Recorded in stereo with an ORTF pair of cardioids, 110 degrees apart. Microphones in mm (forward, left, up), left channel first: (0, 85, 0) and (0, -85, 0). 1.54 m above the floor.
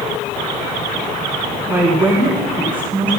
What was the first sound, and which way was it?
A woman speaking, 15° right.